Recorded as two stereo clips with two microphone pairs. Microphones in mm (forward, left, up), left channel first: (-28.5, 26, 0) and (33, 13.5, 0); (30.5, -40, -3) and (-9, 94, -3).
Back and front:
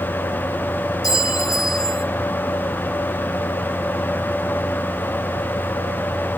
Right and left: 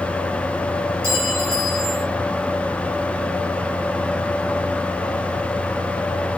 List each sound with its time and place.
1.0 s a clink: 175° left, 2.0 m